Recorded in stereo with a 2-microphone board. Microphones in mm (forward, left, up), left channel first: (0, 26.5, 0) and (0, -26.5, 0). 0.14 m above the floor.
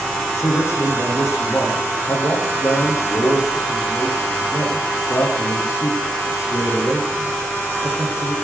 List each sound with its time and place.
0.4 s a man speaking: 70° left (ahead or behind), 9.5 m